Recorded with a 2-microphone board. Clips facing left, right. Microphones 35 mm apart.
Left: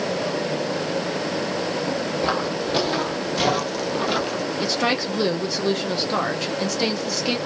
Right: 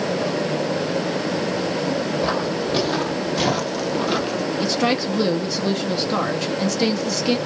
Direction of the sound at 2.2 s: 10° left (ahead or behind).